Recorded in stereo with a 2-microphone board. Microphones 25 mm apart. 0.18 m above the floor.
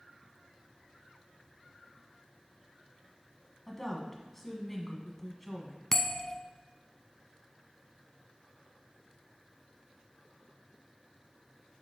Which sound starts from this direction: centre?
A woman speaking, at 3.7 s.